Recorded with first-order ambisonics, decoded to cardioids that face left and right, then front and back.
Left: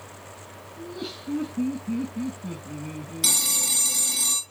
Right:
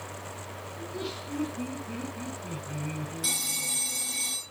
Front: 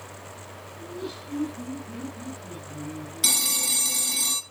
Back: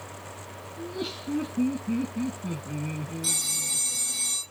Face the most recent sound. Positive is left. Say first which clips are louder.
# left 8 dB, front 5 dB
turn(degrees=35)